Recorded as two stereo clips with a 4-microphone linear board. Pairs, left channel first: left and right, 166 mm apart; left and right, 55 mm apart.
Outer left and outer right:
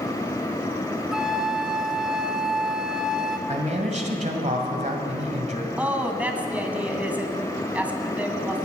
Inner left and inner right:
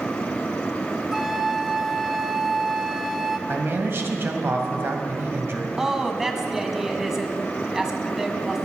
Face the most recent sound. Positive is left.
turn(degrees=-10)  # may be behind; listen again after turning